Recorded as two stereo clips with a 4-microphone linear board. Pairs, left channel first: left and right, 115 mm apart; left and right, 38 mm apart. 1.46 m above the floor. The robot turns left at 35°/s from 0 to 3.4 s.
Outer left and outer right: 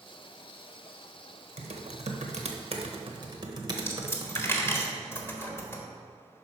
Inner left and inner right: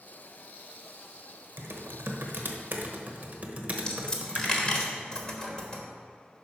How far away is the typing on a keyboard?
About 1.1 m.